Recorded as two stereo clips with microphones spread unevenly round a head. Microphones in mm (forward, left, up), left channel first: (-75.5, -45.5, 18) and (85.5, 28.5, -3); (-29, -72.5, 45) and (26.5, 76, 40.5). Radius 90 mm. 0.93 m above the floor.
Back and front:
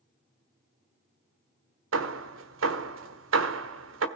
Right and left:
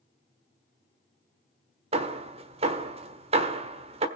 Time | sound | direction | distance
1.9 | hammering | 15° left | 1.4 m